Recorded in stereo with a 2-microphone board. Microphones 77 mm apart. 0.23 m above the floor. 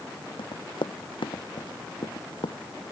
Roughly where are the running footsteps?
Left.